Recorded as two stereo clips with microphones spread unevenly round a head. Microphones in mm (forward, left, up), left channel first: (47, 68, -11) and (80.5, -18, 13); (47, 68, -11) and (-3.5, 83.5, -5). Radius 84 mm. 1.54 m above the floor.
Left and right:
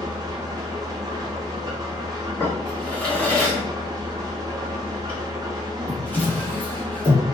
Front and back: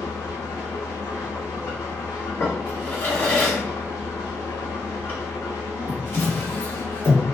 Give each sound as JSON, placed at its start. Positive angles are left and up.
{"t": 0.0, "sound": "an engine running", "azimuth_deg": -25, "distance_m": 0.8}
{"t": 2.4, "sound": "a drawer", "azimuth_deg": 30, "distance_m": 1.5}